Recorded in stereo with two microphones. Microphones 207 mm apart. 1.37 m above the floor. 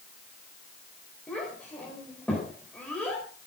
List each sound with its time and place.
1.3 s a child speaking: 5° left (ahead or behind), 4 m